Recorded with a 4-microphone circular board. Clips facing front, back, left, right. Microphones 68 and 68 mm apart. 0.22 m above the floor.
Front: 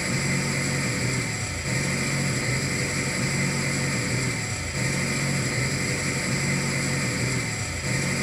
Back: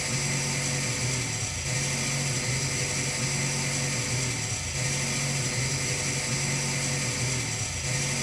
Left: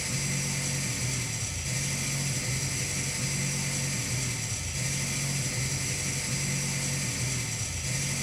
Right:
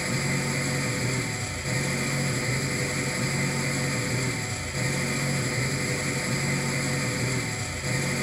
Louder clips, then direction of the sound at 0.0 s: Front 5 dB, right 7 dB; 45° right.